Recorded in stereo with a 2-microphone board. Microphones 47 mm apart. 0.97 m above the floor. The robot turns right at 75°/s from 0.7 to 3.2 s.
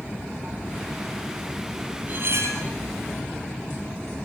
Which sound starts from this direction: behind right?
Cutlery clinking, at 2.1 s.